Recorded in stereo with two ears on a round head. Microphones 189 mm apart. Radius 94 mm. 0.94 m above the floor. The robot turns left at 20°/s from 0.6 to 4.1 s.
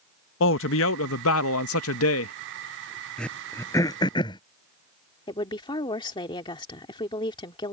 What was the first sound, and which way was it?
A man speaking, 110° left.